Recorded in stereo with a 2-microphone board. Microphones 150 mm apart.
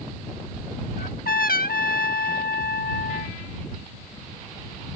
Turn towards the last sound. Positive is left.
turn(degrees=80)